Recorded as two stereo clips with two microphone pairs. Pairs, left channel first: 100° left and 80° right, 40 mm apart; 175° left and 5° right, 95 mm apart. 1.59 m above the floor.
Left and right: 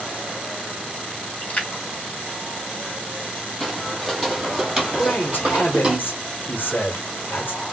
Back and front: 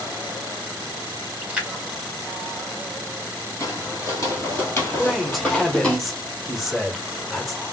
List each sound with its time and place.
1.4 s a splash: 70° left, 1.2 m
3.6 s footsteps: 170° left, 1.9 m; by 6.0 s 110° right, 1.8 m
5.0 s a man speaking: 85° left, 0.9 m